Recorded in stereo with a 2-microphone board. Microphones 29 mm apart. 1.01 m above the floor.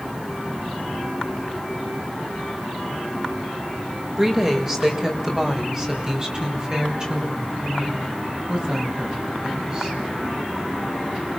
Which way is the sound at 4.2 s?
20° right (ahead or behind).